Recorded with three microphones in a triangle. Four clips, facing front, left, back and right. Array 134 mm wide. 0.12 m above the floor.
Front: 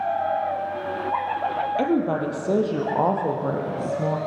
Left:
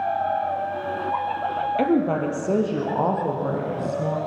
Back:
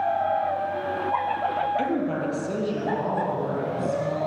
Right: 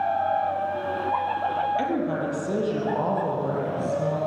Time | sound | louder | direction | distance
1.8 | a woman speaking | left 5 dB, front 3 dB | 55° left | 3 m